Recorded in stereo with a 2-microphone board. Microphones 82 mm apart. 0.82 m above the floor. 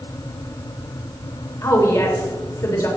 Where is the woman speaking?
45° left (ahead or behind), 2.5 m.